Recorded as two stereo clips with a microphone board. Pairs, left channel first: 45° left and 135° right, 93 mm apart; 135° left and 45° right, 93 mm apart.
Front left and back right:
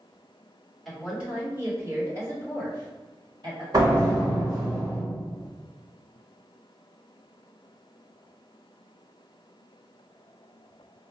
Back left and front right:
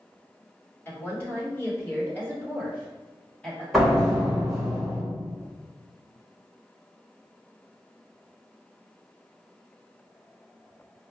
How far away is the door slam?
About 1.3 m.